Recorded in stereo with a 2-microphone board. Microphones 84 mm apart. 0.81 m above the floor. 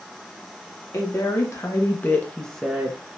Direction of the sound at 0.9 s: 40° left (ahead or behind).